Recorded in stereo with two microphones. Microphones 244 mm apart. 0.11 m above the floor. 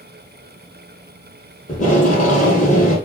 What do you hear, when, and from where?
1.7 s tape being pulled: 30° left (ahead or behind), 1.8 m